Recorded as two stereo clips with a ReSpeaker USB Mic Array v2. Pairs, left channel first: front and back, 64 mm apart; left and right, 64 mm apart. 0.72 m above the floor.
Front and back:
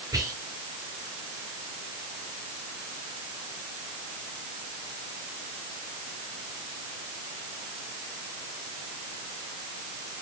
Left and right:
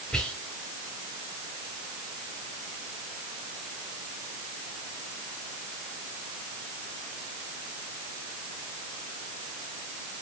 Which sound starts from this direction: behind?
Whispering, at 0.1 s.